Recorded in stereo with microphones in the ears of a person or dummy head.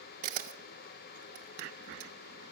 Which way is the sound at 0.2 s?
50° right (ahead or behind).